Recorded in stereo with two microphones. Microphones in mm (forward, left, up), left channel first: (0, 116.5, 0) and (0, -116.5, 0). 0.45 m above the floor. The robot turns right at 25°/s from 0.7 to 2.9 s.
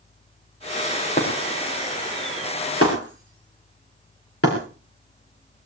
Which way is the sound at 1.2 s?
35° left (ahead or behind).